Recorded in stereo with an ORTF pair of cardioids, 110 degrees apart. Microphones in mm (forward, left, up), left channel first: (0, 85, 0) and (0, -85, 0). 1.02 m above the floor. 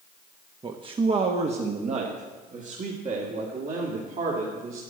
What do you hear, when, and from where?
0.6 s a man speaking: 30° right, 1.0 m; by 4.8 s 50° right, 3 m